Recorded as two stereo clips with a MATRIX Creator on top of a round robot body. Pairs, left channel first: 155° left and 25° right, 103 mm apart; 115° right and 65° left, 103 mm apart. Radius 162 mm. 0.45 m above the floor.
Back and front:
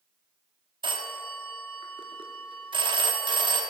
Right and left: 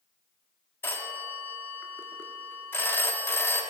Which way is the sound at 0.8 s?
45° right.